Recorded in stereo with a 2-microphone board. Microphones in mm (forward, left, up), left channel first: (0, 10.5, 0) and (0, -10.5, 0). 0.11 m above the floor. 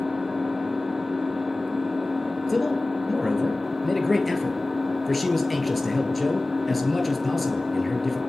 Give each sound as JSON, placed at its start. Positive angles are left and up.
{"t": 0.0, "sound": "an engine running", "side_deg": -5, "distance_m": 2.0}
{"t": 2.5, "sound": "a man speaking", "side_deg": 5, "distance_m": 2.0}